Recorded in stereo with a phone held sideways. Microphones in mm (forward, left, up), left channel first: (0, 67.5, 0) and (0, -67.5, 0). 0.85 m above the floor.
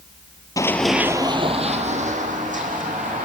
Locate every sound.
0.6 s running footsteps: 25° left (ahead or behind), 1.1 m; by 3.2 s 75° right (ahead or behind), 4 m